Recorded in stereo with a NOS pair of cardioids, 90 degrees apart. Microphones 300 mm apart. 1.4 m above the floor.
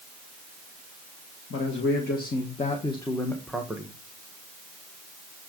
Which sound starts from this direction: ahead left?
A man speaking, at 1.5 s.